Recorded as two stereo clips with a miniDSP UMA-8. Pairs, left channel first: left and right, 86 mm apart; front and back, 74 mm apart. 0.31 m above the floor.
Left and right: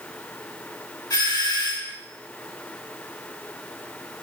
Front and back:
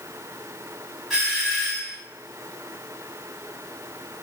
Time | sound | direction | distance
1.1 | a doorbell | 95° left | 3 m